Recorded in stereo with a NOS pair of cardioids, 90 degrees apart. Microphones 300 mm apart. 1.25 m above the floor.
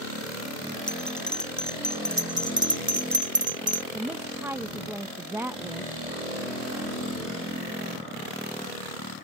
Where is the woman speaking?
5° right.